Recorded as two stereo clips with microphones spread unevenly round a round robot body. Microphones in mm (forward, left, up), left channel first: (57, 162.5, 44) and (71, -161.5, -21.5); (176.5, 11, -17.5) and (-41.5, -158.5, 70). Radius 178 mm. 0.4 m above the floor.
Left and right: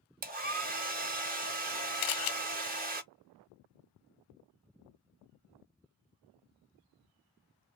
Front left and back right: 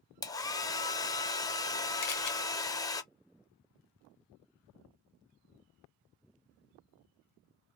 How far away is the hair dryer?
About 0.6 m.